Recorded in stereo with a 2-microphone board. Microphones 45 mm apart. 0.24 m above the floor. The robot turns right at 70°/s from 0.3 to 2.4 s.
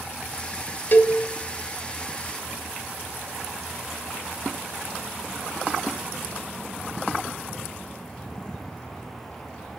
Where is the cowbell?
45° left (ahead or behind), 1.0 m.